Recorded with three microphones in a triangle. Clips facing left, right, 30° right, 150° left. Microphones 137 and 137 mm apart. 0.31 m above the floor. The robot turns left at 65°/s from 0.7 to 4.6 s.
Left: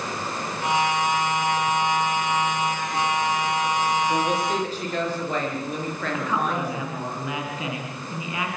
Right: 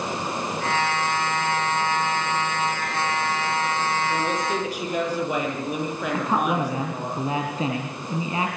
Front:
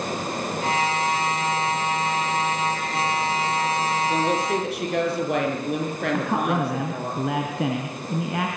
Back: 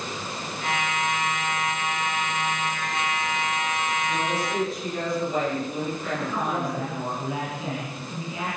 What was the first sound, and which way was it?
A woman speaking, 20° left.